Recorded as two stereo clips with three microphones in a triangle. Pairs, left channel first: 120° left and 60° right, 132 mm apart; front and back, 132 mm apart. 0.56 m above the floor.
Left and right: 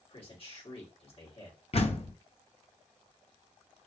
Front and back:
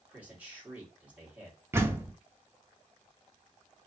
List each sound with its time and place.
0.1 s a man speaking: 105° left, 1.7 m
1.7 s a door slam: 115° left, 0.6 m